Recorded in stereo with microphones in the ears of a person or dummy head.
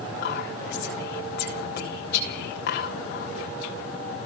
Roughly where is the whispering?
Left.